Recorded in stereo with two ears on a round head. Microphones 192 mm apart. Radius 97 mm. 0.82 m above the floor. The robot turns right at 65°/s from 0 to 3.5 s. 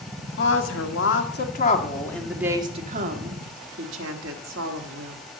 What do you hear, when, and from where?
0.4 s a woman speaking: 55° left, 1.6 m; by 5.2 s 100° right, 1.6 m